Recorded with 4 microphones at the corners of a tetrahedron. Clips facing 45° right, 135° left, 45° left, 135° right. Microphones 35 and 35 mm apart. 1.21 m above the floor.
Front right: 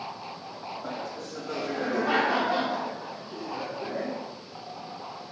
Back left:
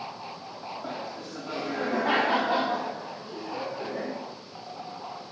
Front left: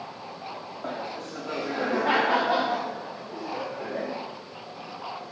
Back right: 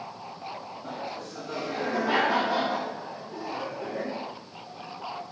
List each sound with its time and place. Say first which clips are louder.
0.8 s laughter: front right 1 dB, front left 3 dB; 70° left, 2.5 m; by 4.1 s 105° left, 4 m